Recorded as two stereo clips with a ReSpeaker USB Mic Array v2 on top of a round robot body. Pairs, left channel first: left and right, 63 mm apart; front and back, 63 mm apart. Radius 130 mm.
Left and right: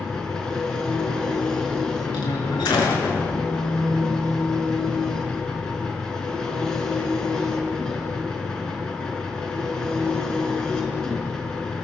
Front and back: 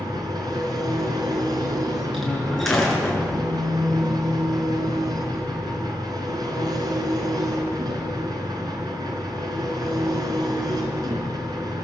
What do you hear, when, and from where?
0.0 s an engine running: 170° left, 3.5 m
2.1 s a door slam: 85° left, 6 m